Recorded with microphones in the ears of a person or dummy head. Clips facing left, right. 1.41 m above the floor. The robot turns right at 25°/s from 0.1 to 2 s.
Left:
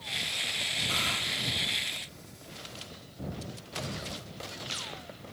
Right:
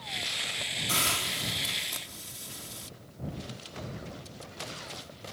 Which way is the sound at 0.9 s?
50° right (ahead or behind).